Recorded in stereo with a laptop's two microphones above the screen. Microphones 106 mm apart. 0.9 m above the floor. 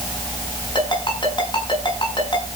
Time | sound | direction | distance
0.8 | a ringtone | 45° left (ahead or behind) | 6.5 m